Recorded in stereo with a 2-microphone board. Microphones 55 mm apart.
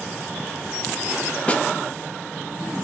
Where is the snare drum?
25° left (ahead or behind), 0.6 m.